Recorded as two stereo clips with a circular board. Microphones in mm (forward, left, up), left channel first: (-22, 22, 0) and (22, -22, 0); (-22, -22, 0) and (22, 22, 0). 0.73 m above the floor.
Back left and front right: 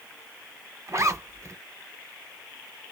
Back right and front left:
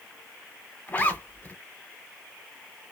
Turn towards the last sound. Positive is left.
turn(degrees=-75)